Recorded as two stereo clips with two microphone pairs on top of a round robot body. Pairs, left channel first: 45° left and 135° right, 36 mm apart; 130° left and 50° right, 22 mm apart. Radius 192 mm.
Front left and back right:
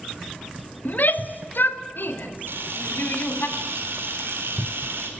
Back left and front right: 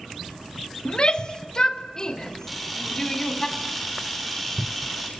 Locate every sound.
0.8 s a shout: 85° left, 1.6 m; by 3.5 s 65° left, 3 m
2.5 s a camera shutter: 135° right, 5.5 m